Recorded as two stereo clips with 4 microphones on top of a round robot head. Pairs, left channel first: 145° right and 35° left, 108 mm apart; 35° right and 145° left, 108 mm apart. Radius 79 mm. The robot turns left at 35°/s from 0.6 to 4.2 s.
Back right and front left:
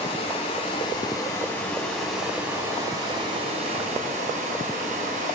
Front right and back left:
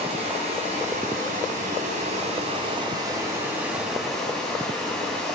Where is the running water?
175° left, 2 m; by 5.4 s 50° left, 2 m.